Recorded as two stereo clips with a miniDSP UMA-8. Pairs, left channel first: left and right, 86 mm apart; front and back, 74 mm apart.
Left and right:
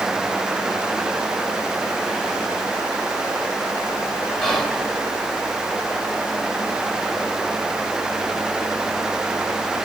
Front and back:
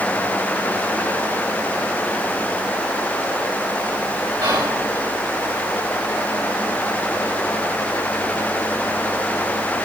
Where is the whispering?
175° left, 4.5 m.